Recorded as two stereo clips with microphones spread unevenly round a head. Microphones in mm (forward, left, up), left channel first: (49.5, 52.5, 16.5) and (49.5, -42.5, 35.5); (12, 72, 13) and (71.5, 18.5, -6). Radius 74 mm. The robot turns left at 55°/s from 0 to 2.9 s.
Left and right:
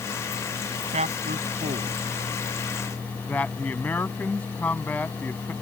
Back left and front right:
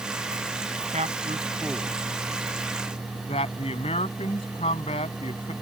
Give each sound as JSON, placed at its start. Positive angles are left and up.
{"t": 0.9, "sound": "a man speaking", "azimuth_deg": -80}